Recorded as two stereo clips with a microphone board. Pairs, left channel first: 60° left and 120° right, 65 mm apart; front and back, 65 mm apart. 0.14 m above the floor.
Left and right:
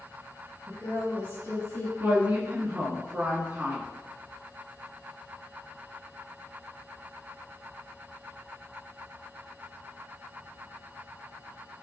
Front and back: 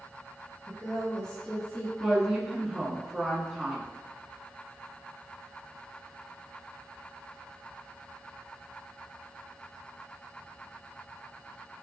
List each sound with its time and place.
0.7 s a woman speaking: 105° left, 1.7 m; by 1.9 s 40° left, 1.6 m
2.0 s a woman speaking: 110° right, 1.4 m